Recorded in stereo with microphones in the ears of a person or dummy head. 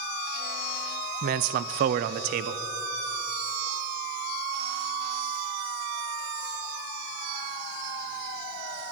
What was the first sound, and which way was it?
A man speaking, 45° right (ahead or behind).